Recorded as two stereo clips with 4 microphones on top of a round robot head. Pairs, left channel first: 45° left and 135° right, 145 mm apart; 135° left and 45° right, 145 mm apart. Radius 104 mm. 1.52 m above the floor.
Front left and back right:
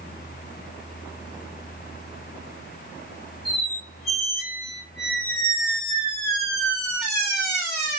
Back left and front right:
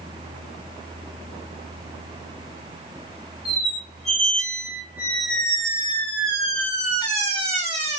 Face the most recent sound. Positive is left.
turn(degrees=-45)